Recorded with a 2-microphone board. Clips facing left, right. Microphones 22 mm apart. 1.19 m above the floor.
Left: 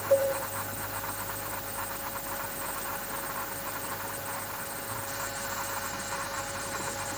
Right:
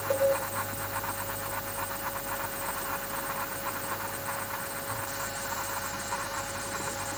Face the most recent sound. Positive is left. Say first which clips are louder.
# left 2 dB
turn(degrees=-65)  # may be behind; listen again after turning